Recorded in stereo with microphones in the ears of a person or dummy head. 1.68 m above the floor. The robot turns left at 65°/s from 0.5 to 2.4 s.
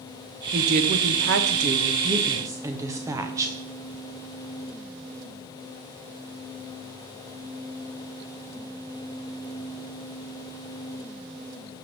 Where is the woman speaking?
40° right, 0.7 m; by 3.5 s 160° right, 0.7 m.